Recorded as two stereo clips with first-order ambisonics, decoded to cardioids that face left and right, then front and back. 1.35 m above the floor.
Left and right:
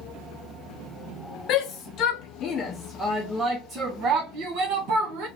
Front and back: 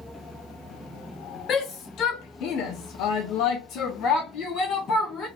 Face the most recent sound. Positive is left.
turn(degrees=-70)